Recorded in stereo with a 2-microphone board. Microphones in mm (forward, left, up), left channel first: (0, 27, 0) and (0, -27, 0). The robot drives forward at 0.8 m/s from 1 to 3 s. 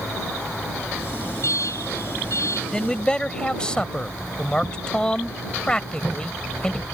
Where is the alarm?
65° left (ahead or behind).